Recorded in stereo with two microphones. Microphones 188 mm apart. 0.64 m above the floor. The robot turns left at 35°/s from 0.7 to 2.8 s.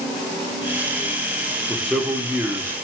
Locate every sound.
1.7 s a man speaking: 5° left (ahead or behind), 0.9 m; by 2.7 s 15° right (ahead or behind), 0.9 m